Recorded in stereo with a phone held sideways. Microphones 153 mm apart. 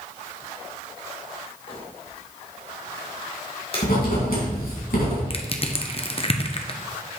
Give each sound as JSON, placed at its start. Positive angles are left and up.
{"t": 1.7, "sound": "crumpling", "side_deg": 35, "distance_m": 2.5}
{"t": 3.8, "sound": "writing", "side_deg": 75, "distance_m": 3.5}
{"t": 5.3, "sound": "crushing", "side_deg": 40, "distance_m": 0.8}